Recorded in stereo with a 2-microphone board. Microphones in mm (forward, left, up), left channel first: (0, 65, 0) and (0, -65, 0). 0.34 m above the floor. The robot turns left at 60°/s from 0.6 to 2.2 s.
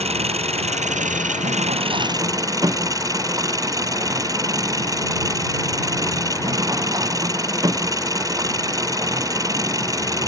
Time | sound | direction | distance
0.0 | an engine running | 55° right | ?